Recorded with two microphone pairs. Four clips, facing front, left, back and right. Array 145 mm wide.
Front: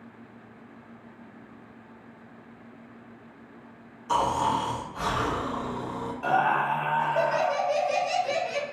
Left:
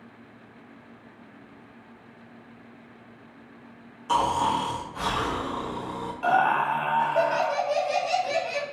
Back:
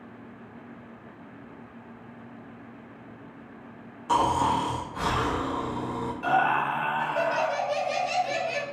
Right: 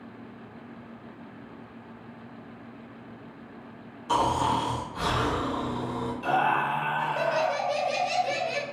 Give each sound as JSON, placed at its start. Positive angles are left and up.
{"t": 4.1, "sound": "snoring", "azimuth_deg": 155, "distance_m": 1.0}
{"t": 6.2, "sound": "laughter", "azimuth_deg": 80, "distance_m": 1.6}